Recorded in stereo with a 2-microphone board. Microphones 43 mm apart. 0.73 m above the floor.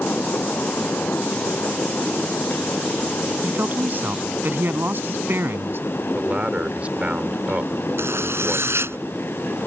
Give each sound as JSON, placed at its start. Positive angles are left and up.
{"t": 3.4, "sound": "a man speaking", "side_deg": -45}
{"t": 6.1, "sound": "a man speaking", "side_deg": -30}
{"t": 8.0, "sound": "a zipper", "side_deg": -75}